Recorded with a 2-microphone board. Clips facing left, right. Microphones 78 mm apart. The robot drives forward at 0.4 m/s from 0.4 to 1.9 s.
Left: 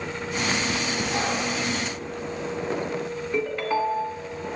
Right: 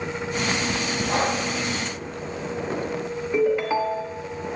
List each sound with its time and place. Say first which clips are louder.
1.1 s breathing: right 5 dB; 45° right (ahead or behind), 3 m
3.3 s a ringtone: right 4 dB; 5° right (ahead or behind), 1.3 m